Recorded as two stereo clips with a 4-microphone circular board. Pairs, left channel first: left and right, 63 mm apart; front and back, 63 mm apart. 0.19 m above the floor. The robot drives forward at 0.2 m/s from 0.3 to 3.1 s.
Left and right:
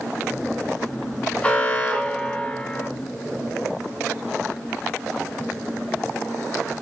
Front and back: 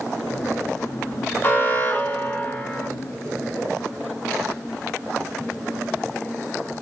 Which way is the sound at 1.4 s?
35° left.